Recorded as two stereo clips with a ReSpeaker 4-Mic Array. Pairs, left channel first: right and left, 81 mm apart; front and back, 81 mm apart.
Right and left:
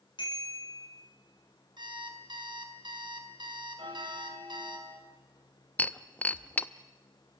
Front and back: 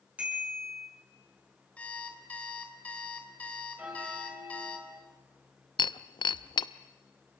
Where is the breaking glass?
20° right, 0.6 m.